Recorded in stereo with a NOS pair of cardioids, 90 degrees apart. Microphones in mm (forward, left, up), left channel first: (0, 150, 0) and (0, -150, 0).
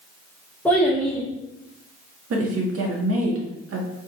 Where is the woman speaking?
50° right, 1.5 m.